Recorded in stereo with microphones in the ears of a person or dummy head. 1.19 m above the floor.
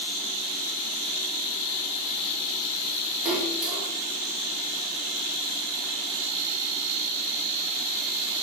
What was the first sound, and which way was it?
A splash, 5° right (ahead or behind).